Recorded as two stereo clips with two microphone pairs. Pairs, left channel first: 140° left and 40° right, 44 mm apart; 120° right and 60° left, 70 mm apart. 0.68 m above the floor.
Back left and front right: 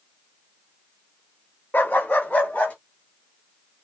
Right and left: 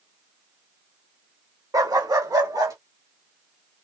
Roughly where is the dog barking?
Left.